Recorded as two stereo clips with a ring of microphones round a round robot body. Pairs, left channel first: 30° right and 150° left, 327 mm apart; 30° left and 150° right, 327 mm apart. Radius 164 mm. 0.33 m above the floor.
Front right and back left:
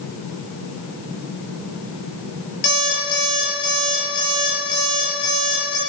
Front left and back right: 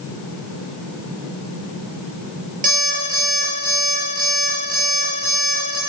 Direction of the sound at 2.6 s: 85° right.